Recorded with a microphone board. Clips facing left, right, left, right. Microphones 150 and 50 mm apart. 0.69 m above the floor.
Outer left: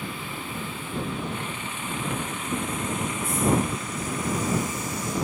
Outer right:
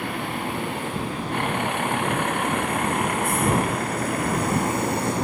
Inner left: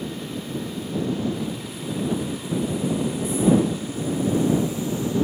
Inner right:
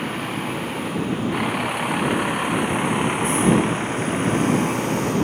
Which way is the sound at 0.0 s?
75° right (ahead or behind).